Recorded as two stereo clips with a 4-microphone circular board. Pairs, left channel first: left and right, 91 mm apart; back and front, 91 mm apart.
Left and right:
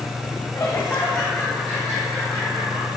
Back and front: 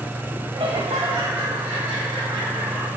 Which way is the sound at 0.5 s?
40° left.